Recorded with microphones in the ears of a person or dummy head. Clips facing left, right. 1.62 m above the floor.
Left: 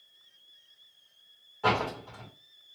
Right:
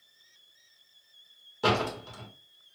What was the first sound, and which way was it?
A door slam, 60° right (ahead or behind).